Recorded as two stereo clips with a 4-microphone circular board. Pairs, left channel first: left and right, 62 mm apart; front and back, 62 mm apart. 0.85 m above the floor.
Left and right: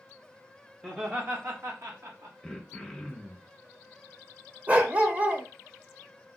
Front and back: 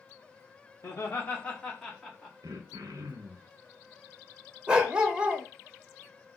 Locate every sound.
0.8 s laughter: 20° right, 0.6 m; by 2.3 s 90° right, 1.1 m
2.4 s throat clearing: 170° left, 0.6 m
4.7 s a dog barking: 120° right, 0.6 m